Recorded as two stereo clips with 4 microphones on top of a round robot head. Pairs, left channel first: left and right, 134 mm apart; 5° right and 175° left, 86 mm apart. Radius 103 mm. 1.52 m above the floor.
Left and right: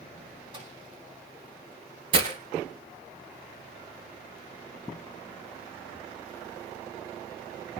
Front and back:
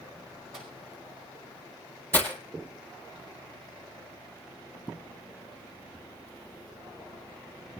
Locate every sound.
0.5 s a microwave: 140° right, 9 m
2.1 s breaking glass: 110° right, 1.8 m